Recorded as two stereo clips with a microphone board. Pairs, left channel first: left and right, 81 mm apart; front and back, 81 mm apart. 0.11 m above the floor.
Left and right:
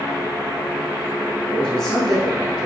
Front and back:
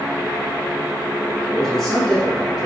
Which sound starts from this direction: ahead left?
A man speaking, at 1.5 s.